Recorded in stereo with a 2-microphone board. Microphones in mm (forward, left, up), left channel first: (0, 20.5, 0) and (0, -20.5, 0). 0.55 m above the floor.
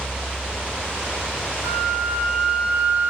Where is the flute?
45° right (ahead or behind), 1.7 m.